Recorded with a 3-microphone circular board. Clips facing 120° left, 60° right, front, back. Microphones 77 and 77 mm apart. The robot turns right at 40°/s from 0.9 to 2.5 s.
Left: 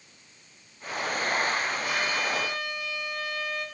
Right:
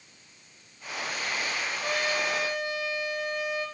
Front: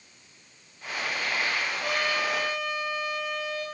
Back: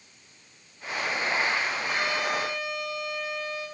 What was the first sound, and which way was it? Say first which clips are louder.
A trumpet: even, even; 15° right.